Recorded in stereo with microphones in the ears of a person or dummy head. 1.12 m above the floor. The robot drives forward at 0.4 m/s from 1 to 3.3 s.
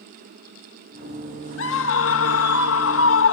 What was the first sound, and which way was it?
A scream, 65° left (ahead or behind).